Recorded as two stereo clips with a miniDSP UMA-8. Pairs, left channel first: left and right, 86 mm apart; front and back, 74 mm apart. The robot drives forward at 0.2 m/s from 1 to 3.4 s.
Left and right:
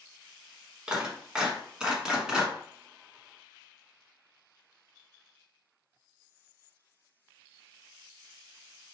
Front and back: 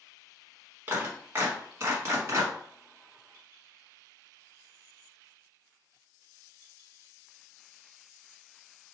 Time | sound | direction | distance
0.9 | a clap | 160° right | 1.0 m